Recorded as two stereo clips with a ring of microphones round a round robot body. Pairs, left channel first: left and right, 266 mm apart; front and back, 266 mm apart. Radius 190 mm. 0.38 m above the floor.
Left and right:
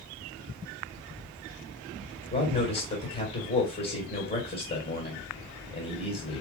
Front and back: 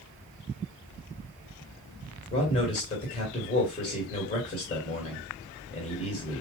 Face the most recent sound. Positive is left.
turn(degrees=55)